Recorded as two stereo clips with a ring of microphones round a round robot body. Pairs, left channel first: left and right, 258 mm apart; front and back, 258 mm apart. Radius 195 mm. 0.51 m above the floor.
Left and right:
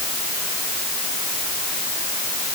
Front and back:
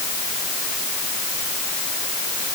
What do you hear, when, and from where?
Only background noise.